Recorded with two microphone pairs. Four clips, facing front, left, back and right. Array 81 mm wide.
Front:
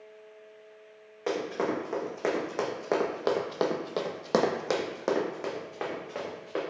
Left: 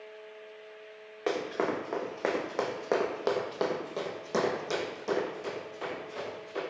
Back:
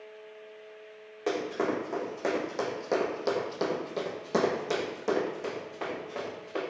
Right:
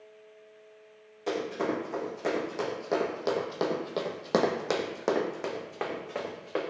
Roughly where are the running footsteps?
Left.